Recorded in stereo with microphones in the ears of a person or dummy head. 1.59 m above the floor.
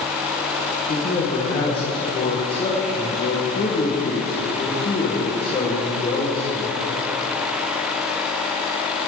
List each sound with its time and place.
0.9 s a man speaking: 35° left (ahead or behind), 1.9 m